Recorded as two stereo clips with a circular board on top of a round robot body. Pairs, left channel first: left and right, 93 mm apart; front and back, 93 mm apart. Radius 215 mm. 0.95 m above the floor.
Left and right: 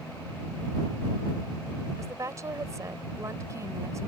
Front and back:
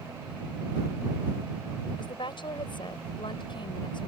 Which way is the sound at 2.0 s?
35° right.